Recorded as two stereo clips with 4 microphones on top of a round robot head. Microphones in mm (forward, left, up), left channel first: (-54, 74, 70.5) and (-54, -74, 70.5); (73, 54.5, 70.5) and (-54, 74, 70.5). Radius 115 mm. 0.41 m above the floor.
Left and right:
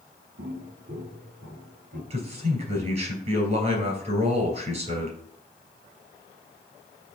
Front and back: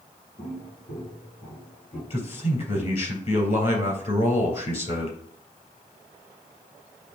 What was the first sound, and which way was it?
Footsteps, 80° right.